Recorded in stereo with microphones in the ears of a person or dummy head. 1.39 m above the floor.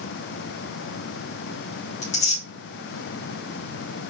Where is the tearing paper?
40° left (ahead or behind), 3.5 m.